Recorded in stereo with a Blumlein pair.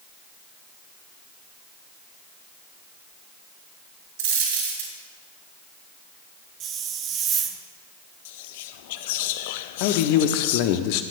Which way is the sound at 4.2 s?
50° right.